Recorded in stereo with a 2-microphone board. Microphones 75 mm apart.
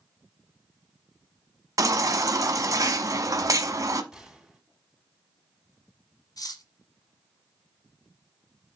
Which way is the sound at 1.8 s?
45° right (ahead or behind).